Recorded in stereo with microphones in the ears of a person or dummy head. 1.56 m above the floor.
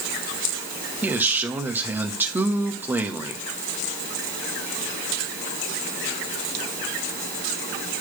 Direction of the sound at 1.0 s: 10° right (ahead or behind).